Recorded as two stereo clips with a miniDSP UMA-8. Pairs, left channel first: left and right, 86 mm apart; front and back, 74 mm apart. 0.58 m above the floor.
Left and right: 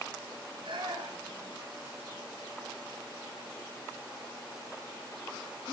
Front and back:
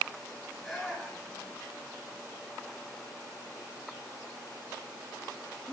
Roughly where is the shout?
Right.